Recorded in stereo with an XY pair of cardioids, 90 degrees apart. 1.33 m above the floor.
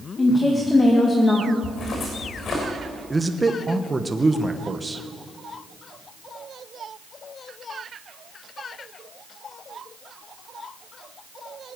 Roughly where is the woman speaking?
Ahead left.